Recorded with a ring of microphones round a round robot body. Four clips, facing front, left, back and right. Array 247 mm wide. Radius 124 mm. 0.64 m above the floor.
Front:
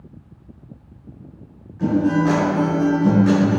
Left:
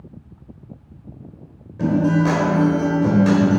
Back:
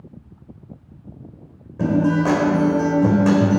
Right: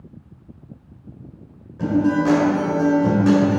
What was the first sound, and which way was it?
A guitar, 165° left.